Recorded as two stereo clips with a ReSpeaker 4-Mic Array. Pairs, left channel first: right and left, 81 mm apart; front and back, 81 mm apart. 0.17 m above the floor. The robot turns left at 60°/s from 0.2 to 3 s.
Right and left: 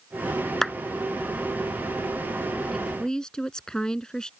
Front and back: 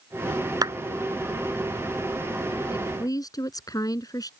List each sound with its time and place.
0.6 s a clap: 175° right; by 0.7 s straight behind
2.7 s a woman speaking: 5° left; by 4.3 s 10° right